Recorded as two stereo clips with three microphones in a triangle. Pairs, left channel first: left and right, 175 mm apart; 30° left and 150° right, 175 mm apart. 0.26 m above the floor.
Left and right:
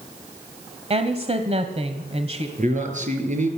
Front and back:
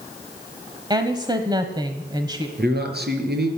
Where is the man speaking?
135° right, 5 m.